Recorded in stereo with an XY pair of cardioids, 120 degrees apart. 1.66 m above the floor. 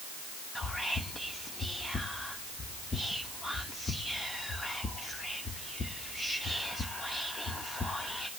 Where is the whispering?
20° left, 1.0 m.